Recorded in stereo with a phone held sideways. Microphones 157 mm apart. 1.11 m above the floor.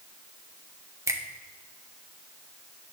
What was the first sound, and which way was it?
A finger snap, 20° right (ahead or behind).